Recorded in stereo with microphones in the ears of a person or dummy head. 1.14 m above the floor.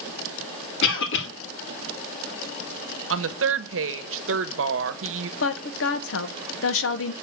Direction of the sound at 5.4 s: 65° left (ahead or behind).